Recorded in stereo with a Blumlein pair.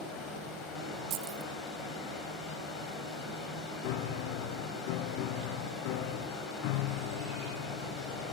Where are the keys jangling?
45° right, 0.6 m.